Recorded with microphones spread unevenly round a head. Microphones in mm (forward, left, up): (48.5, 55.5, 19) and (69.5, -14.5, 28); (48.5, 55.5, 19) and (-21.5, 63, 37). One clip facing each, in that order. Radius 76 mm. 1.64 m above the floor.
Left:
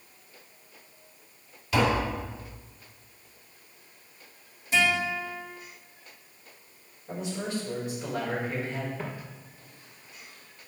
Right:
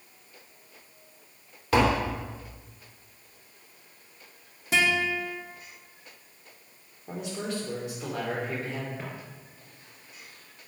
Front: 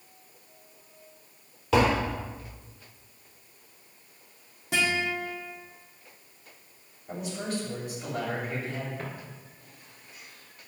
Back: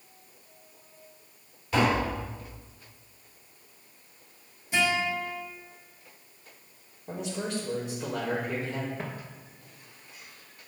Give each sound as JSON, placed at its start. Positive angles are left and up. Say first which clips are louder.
{"t": 1.7, "sound": "tapping", "louder": "right 2 dB, front 2 dB", "azimuth_deg": -35, "distance_m": 3.5}
{"t": 4.7, "sound": "a guitar", "louder": "even, back 1 dB", "azimuth_deg": -70, "distance_m": 2.5}
{"t": 7.1, "sound": "a man speaking", "louder": "left 1 dB, even", "azimuth_deg": -125, "distance_m": 4.0}
{"t": 9.0, "sound": "footsteps", "louder": "left 2 dB, back 1 dB", "azimuth_deg": -155, "distance_m": 1.8}